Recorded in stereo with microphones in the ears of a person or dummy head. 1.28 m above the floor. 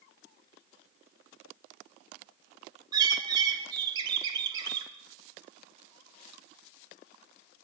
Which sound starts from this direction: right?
A bird, at 2.9 s.